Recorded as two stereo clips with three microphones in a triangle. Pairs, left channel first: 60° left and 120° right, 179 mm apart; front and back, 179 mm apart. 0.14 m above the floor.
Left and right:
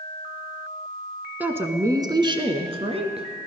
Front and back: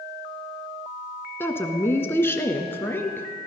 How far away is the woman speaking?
About 1.1 m.